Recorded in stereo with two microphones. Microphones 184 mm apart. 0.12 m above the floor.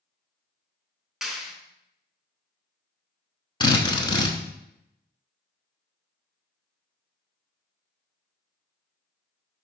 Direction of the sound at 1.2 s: Centre (ahead or behind).